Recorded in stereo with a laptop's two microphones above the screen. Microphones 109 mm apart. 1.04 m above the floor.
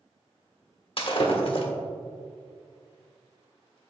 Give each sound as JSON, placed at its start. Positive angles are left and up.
{"t": 1.0, "sound": "breaking glass", "side_deg": 60, "distance_m": 1.3}